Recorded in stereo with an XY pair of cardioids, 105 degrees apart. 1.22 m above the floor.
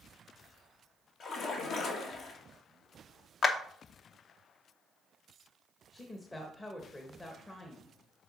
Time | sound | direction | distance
1.2 | a splash | 60° left | 1.7 m
3.4 | a clap | 45° left | 1.0 m
5.9 | a woman speaking | 20° left | 1.1 m